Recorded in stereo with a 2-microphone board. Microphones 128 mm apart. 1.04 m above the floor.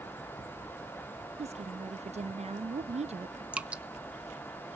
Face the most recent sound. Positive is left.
turn(degrees=-10)  # may be behind; listen again after turning